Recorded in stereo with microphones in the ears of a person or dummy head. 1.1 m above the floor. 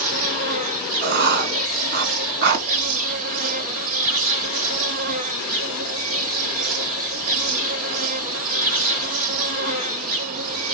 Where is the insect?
40° right (ahead or behind), 0.8 m.